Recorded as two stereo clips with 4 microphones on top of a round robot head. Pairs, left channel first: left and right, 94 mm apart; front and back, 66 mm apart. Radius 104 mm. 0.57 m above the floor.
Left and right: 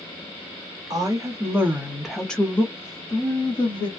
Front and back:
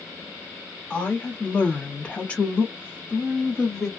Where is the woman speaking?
65° right, 1.3 m; by 3.9 s 85° left, 1.5 m.